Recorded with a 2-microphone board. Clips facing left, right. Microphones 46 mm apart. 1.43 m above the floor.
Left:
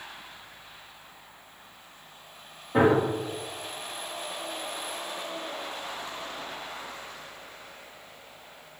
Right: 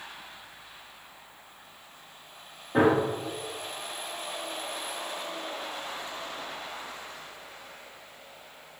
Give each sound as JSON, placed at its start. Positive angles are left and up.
{"t": 2.7, "sound": "a gunshot", "side_deg": 0, "distance_m": 1.8}